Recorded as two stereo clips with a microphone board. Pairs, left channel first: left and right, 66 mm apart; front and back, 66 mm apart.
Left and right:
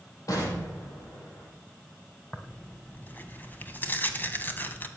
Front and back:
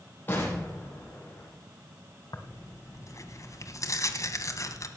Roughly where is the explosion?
Ahead left.